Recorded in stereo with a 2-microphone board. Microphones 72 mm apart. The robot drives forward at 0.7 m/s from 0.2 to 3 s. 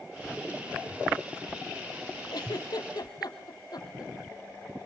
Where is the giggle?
70° left (ahead or behind), 3 m; by 4.1 s 65° left (ahead or behind), 3.5 m.